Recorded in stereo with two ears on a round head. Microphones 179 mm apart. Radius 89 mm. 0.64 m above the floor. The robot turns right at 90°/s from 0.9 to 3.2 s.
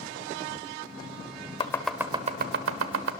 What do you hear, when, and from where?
1.6 s chopping: 25° left (ahead or behind), 1.0 m; by 3.1 s 70° right (ahead or behind), 1.0 m